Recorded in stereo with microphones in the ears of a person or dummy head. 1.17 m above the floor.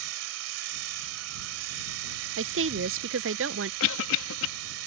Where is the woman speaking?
55° right (ahead or behind).